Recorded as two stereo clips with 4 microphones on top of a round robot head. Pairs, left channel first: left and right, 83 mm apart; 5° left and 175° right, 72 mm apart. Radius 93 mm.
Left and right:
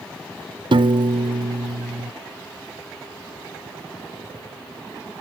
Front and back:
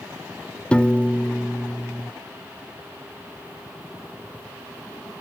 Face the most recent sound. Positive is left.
turn(degrees=-70)